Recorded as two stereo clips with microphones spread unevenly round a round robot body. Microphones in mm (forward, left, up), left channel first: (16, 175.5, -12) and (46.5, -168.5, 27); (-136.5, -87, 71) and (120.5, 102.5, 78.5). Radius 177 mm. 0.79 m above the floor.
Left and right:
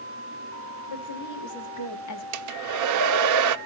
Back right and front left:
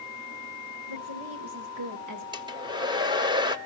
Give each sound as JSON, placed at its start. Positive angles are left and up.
{"t": 0.9, "sound": "a woman speaking", "azimuth_deg": 65, "distance_m": 2.5}
{"t": 2.3, "sound": "a hair dryer", "azimuth_deg": -40, "distance_m": 0.6}